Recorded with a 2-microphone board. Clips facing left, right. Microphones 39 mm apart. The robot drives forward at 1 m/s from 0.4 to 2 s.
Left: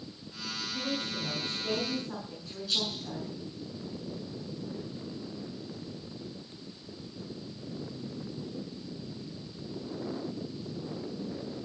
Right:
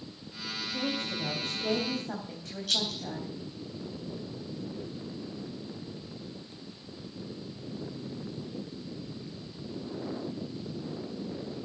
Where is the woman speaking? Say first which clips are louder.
Right 2 dB; 65° right (ahead or behind), 3.5 m.